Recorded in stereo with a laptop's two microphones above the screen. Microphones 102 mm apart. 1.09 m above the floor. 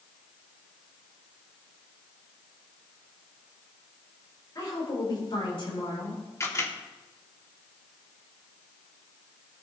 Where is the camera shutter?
30° left (ahead or behind), 2 m.